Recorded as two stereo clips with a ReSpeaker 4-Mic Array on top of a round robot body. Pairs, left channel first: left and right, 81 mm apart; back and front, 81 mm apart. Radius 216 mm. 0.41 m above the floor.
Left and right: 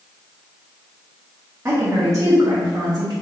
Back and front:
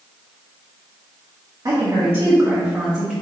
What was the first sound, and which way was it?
A woman speaking, 35° right.